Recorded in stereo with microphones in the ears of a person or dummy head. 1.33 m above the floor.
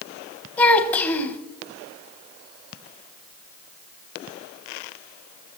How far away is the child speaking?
About 1.0 m.